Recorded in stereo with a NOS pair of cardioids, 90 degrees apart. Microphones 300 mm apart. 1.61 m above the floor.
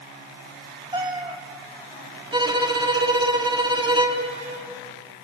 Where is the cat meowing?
20° right, 3.5 m.